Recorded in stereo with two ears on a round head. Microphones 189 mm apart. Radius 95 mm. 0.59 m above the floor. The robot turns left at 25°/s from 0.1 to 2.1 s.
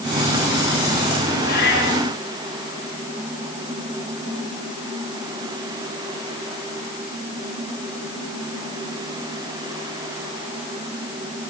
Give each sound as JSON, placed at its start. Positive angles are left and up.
{"t": 1.4, "sound": "a cat meowing", "side_deg": 45, "distance_m": 8.0}